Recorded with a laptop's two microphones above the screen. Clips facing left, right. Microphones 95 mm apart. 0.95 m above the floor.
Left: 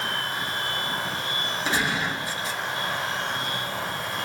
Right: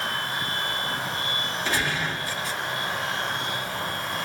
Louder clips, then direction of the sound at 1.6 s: Left 2 dB; 20° left (ahead or behind).